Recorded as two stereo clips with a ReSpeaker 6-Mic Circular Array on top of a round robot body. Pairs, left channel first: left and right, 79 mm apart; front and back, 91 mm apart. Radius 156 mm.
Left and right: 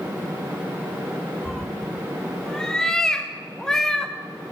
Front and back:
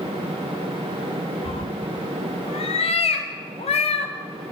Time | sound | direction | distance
1.4 | a cat meowing | 10° left | 0.5 m